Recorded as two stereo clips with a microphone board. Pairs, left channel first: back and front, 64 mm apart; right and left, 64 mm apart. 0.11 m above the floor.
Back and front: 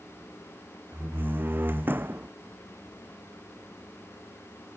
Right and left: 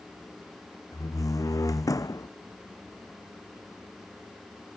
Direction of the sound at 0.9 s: 60° right.